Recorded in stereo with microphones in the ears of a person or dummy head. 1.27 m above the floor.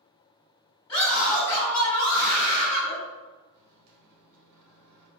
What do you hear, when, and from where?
0.9 s a scream: 25° left (ahead or behind), 1.4 m
3.5 s a microwave: 50° right (ahead or behind), 0.8 m